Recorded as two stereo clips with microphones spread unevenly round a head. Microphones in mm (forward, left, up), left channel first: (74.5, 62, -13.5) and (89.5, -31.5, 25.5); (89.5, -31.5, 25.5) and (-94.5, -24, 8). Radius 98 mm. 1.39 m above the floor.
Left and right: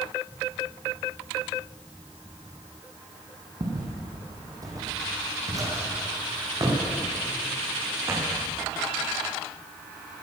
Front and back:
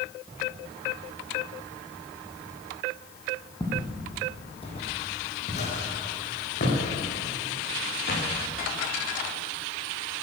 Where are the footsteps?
70° right, 3 m; by 8.3 s 30° right, 6 m.